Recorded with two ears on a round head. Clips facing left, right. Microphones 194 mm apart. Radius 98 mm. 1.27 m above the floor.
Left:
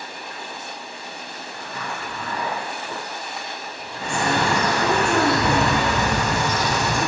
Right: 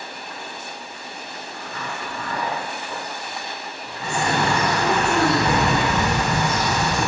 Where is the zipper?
80° left, 0.8 m.